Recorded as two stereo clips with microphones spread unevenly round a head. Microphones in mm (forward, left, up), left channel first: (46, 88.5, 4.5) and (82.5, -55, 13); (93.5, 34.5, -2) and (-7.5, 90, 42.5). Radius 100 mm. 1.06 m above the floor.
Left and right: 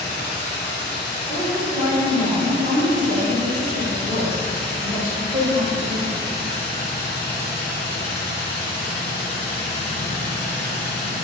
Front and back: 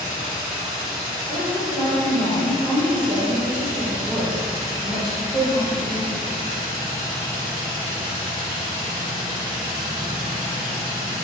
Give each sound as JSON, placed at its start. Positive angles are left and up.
{"t": 0.0, "sound": "a machine running", "azimuth_deg": 145, "distance_m": 0.8}
{"t": 1.3, "sound": "a woman speaking", "azimuth_deg": -100, "distance_m": 0.9}